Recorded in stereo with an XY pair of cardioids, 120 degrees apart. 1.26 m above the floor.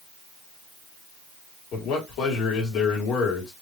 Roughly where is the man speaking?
Ahead left.